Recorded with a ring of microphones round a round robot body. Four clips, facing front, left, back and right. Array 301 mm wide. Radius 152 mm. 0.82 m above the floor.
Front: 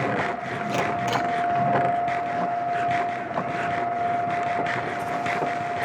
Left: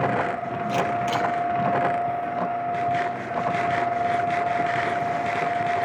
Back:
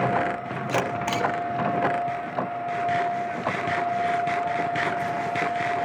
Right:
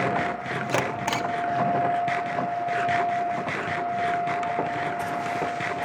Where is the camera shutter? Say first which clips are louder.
Left 3 dB, front 1 dB; 110° right, 1.4 m.